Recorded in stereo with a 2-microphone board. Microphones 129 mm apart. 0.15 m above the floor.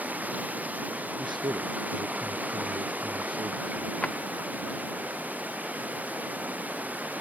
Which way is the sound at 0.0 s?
10° right (ahead or behind).